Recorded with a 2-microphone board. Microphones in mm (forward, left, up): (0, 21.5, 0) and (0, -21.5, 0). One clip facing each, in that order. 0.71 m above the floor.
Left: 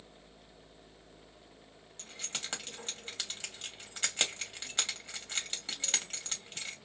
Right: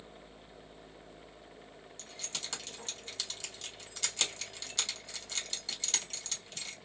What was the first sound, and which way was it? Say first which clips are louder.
Keys jangling: left 2 dB; 35° left (ahead or behind).